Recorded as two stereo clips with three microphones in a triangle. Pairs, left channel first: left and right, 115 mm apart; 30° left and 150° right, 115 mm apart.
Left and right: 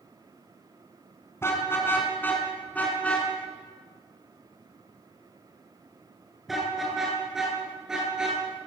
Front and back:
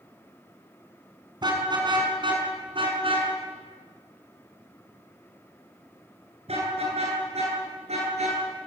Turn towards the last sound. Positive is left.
turn(degrees=-175)